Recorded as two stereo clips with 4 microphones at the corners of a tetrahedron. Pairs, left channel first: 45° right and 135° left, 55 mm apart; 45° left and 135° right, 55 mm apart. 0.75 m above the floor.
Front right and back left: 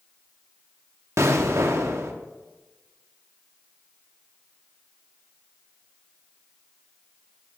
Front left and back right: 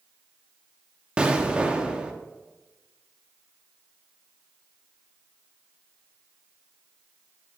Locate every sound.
1.2 s an explosion: 155° left, 0.8 m